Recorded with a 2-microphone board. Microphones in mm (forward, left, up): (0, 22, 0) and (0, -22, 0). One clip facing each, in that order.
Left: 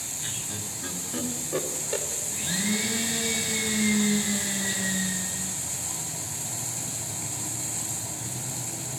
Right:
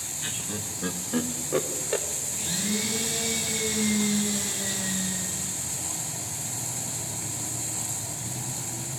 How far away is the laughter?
About 2.5 m.